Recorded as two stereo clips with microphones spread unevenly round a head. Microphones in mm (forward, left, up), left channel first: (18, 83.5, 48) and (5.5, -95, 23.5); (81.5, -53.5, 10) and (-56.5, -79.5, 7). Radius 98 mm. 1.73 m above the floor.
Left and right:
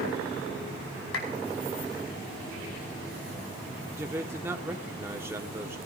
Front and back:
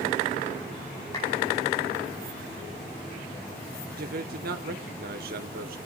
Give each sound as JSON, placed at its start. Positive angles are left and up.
{"t": 1.1, "sound": "a clap", "azimuth_deg": 80, "distance_m": 4.5}
{"t": 4.0, "sound": "a man speaking", "azimuth_deg": -175, "distance_m": 1.4}